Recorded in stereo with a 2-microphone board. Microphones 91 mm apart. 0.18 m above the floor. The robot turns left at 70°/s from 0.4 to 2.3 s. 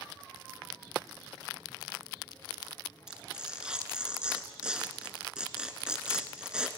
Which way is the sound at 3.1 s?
10° right (ahead or behind).